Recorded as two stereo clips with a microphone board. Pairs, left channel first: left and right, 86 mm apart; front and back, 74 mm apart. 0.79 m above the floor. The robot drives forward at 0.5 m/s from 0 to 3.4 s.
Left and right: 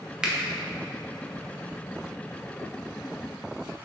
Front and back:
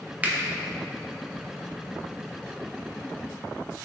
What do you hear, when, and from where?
0.2 s a finger snap: 150° right, 0.7 m; by 0.3 s 160° right, 0.7 m